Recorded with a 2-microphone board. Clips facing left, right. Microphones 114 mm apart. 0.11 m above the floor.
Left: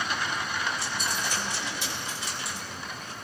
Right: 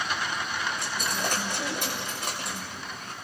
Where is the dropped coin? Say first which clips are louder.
Right 1 dB; 55° right (ahead or behind), 5.5 m.